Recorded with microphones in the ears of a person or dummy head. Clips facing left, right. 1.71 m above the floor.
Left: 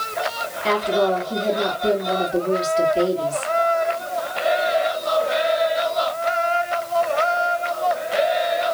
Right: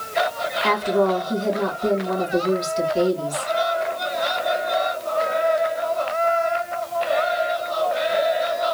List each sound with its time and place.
0.6 s a woman speaking: 80° right, 2.5 m